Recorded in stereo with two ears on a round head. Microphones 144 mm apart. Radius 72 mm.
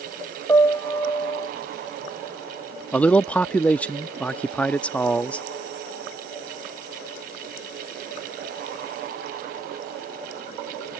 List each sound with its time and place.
0.5 s a piano: 15° left (ahead or behind)
2.9 s a man speaking: 10° left (ahead or behind)